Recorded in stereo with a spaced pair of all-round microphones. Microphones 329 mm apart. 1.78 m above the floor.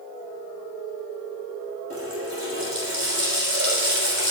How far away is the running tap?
About 6 m.